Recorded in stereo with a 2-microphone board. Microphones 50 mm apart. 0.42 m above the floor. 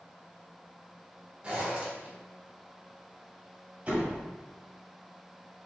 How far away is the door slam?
About 1.2 m.